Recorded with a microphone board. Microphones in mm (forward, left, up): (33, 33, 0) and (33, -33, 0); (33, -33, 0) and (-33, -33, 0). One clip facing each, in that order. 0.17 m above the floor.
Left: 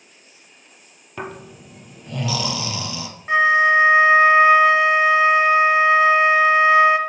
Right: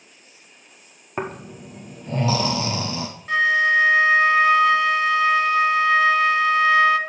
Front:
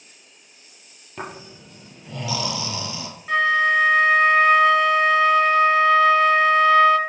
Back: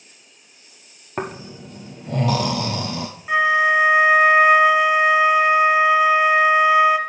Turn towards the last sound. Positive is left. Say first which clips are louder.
# left 3 dB, back 2 dB
turn(degrees=120)